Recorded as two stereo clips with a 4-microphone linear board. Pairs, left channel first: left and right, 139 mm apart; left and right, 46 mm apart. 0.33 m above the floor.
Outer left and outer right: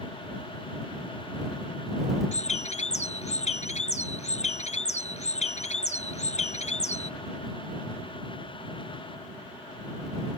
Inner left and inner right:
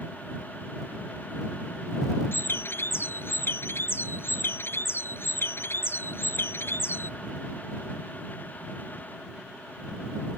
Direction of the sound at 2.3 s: 55° left (ahead or behind).